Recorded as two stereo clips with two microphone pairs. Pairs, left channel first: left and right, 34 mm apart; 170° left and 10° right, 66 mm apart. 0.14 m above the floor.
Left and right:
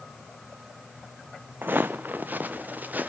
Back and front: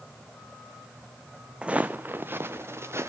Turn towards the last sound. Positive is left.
turn(degrees=-55)